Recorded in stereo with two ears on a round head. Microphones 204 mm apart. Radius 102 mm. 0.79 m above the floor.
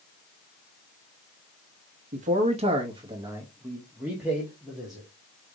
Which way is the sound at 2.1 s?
35° right (ahead or behind).